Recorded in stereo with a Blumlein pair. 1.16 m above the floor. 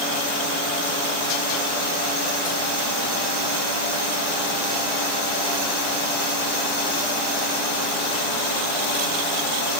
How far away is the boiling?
No boiling in this recording.